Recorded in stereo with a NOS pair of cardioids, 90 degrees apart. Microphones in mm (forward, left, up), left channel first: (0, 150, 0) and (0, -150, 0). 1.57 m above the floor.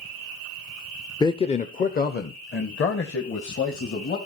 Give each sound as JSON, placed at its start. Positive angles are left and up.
{"t": 1.2, "sound": "a man speaking", "azimuth_deg": 15, "distance_m": 0.6}